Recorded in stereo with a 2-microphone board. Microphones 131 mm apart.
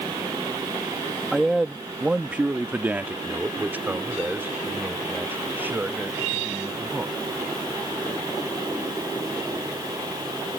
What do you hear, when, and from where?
1.3 s a man speaking: centre (ahead or behind); by 7.2 s 15° right (ahead or behind)